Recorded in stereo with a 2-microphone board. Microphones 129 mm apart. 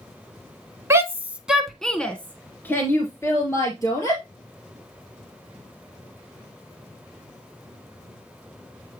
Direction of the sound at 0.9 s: 20° right (ahead or behind).